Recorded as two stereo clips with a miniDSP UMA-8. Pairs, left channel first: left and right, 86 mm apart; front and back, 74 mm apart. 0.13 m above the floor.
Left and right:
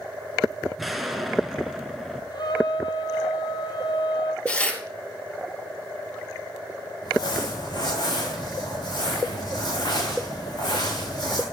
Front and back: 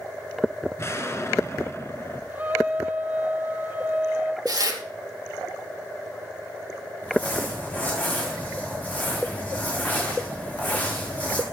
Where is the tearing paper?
165° left, 2.5 m.